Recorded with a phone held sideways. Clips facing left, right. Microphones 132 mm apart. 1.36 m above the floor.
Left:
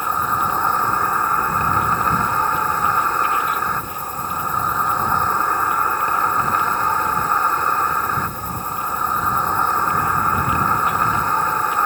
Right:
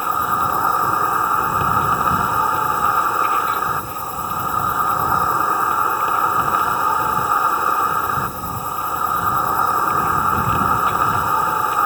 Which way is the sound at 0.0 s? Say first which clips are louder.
Right 1 dB; 10° right (ahead or behind).